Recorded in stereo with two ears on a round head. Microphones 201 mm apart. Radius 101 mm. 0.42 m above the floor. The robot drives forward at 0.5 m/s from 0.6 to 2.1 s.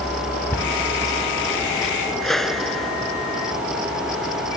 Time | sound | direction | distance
0.5 | a cupboard door | 10° left (ahead or behind) | ?
2.2 | a whoosh | centre (ahead or behind) | ?